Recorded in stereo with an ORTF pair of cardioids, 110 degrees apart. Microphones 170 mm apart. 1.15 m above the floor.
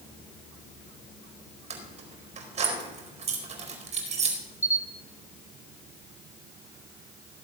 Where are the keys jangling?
40° right, 4.5 m.